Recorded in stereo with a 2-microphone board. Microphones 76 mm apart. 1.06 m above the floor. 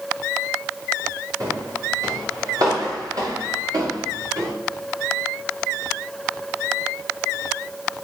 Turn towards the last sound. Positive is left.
turn(degrees=-55)  # may be behind; listen again after turning